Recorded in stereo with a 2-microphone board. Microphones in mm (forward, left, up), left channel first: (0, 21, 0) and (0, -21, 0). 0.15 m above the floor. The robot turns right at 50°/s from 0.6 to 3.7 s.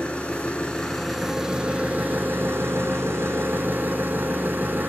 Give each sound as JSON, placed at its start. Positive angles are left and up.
{"t": 0.0, "sound": "an engine running", "azimuth_deg": 145, "distance_m": 1.6}